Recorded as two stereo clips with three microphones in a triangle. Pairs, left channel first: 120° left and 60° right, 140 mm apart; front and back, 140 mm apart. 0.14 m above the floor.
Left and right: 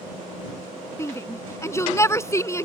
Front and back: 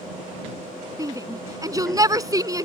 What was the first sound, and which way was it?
A shout, 160° left.